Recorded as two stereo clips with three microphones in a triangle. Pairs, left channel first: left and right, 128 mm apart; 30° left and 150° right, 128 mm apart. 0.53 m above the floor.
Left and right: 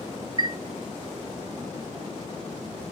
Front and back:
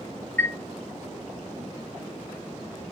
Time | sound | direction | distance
0.4 | a chime | 45° right | 0.6 m